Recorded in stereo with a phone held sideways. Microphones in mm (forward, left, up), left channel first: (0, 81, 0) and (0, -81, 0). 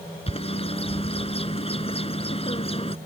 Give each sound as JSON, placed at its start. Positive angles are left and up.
{"t": 0.3, "sound": "a bird", "side_deg": 35}